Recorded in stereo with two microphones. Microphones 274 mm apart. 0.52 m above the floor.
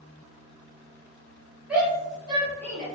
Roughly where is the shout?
Centre.